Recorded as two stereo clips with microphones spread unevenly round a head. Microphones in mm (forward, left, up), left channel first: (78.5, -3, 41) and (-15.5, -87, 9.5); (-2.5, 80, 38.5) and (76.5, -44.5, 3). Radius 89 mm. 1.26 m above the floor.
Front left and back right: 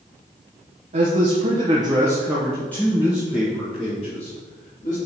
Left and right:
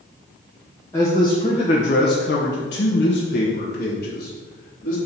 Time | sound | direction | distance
0.9 | a man speaking | 160° right | 1.3 m